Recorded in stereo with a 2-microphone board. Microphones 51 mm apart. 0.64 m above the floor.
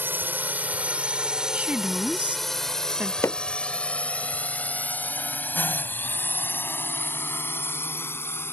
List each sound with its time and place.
0.0 s a drone: 45° right (ahead or behind); by 8.5 s 50° left (ahead or behind)
1.5 s a woman speaking: 25° right (ahead or behind)
3.2 s hammering: 65° left (ahead or behind)